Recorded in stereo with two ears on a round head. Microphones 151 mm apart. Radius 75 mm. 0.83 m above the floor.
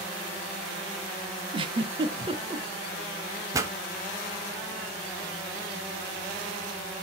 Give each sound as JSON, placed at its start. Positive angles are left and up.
{"t": 1.5, "sound": "a giggle", "side_deg": -30, "distance_m": 0.8}
{"t": 3.5, "sound": "a pop", "side_deg": -20, "distance_m": 0.9}